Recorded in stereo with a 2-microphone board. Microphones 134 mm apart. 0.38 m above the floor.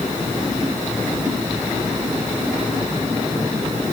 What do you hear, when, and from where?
Only background noise.